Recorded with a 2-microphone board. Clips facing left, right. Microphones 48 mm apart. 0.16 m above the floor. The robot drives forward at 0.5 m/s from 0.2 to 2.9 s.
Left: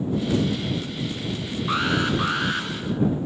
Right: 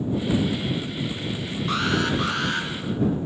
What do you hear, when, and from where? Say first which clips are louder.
1.7 s an alarm: left 1 dB; 10° left (ahead or behind), 0.9 m